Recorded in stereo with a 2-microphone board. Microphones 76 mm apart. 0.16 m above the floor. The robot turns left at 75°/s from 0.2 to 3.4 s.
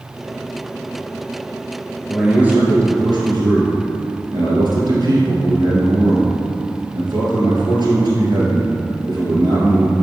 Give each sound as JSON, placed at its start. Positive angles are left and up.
{"t": 2.1, "sound": "a man speaking", "azimuth_deg": 5, "distance_m": 2.5}